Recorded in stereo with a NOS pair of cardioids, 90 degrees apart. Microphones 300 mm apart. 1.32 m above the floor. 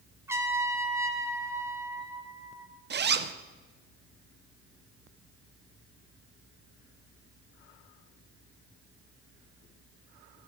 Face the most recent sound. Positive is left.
turn(degrees=-35)